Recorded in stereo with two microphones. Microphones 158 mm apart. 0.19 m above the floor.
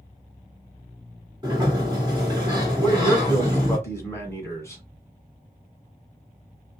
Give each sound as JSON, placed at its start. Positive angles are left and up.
{"t": 1.4, "sound": "a sliding door", "side_deg": -25, "distance_m": 2.5}
{"t": 2.8, "sound": "a man speaking", "side_deg": 15, "distance_m": 2.0}